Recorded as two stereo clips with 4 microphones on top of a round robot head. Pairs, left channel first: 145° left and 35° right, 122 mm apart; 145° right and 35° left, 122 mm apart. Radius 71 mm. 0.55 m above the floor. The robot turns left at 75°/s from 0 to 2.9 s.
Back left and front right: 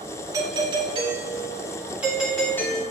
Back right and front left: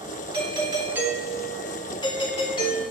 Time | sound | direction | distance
0.3 | a doorbell | 15° left | 2 m